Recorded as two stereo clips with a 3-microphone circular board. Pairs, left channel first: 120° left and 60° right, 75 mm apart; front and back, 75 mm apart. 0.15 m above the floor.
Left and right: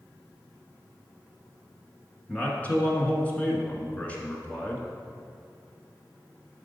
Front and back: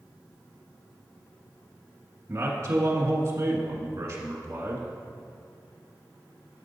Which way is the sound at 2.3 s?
Straight behind.